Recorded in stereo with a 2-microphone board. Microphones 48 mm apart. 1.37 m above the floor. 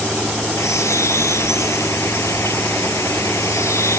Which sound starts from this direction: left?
A bird, at 0.6 s.